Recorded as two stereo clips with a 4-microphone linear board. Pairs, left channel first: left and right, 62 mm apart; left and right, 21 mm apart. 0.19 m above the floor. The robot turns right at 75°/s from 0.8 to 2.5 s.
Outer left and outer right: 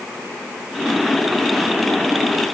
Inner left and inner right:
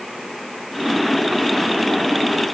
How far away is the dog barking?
No dog barking in this recording.